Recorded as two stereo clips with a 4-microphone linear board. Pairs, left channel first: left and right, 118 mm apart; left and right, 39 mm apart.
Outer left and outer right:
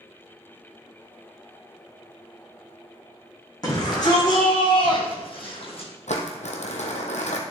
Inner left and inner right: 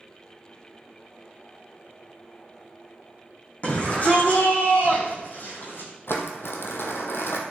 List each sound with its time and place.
3.6 s a shout: 35° left (ahead or behind), 5 m; by 5.9 s 55° left (ahead or behind), 4.5 m
6.1 s crumpling: 75° left (ahead or behind), 1.5 m